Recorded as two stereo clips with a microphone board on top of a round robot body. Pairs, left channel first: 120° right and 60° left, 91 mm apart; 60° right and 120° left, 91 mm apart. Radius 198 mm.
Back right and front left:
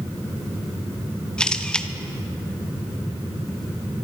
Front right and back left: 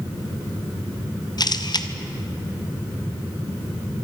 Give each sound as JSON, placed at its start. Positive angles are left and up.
{"t": 1.4, "sound": "a camera shutter", "azimuth_deg": -40, "distance_m": 1.4}